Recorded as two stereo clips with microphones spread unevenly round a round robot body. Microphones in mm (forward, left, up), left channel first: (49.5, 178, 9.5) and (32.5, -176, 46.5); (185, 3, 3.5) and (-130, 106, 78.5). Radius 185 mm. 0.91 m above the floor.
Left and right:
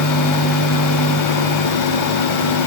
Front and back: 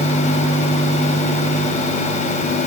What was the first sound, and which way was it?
Only background noise.